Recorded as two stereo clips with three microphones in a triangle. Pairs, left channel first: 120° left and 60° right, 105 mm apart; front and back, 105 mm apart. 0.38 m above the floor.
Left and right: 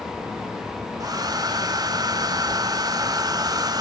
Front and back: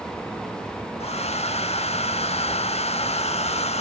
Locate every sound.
1.0 s a hair dryer: 5° right, 0.7 m